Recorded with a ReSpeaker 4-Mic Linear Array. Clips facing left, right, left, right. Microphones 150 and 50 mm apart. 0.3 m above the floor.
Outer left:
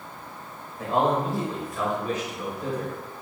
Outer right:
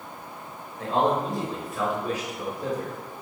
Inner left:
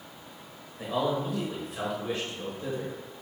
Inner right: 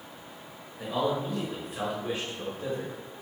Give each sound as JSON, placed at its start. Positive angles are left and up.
{"t": 0.8, "sound": "a man speaking", "side_deg": 15, "distance_m": 1.3}